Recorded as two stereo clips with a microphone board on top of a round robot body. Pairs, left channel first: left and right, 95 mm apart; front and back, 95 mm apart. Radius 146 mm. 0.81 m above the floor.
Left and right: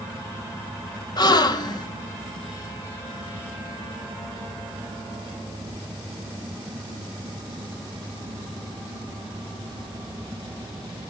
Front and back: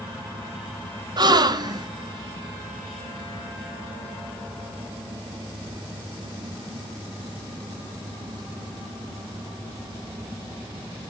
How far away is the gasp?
About 1.2 m.